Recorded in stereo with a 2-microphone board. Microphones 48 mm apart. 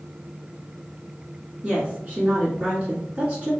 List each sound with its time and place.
1.6 s a woman speaking: 30° right (ahead or behind), 1.7 m